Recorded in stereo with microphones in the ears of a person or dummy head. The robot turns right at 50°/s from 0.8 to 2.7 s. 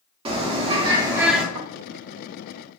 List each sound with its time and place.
0.2 s a bird: 30° right, 0.7 m; by 1.4 s 5° left, 0.7 m
1.6 s snoring: 60° right (ahead or behind), 0.8 m; by 1.7 s 55° right (ahead or behind), 0.8 m